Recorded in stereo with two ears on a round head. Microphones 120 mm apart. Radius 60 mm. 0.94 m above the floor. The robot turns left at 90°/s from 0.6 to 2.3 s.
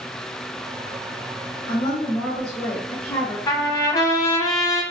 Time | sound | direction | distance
1.7 | a woman speaking | 60° left | 1.3 m
3.5 | a trumpet | 25° left (ahead or behind) | 0.9 m